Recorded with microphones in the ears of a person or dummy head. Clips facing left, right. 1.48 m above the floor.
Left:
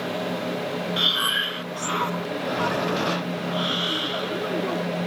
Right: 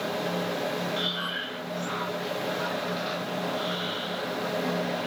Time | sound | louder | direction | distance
1.0 | breathing | left 3 dB | 70° left (ahead or behind) | ?